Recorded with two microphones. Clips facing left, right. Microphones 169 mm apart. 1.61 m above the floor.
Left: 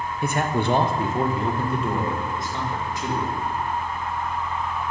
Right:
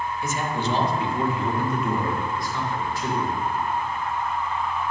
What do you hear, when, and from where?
0.2 s a man speaking: 60° left (ahead or behind), 0.7 m; by 3.3 s 15° left (ahead or behind), 2.5 m